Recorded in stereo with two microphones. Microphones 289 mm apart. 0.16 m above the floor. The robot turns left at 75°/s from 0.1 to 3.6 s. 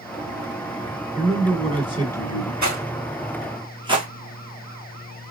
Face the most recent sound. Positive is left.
turn(degrees=-15)  # may be behind; listen again after turning